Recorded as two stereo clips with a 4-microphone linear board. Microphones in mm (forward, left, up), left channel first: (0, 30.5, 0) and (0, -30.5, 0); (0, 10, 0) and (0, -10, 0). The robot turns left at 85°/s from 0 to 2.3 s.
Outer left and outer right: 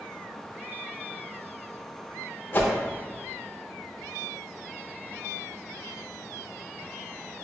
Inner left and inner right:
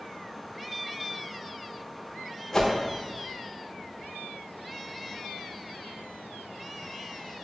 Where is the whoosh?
35° left (ahead or behind), 0.6 m.